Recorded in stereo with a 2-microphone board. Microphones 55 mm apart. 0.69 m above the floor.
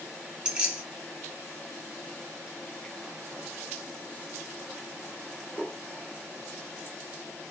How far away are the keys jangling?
About 0.9 m.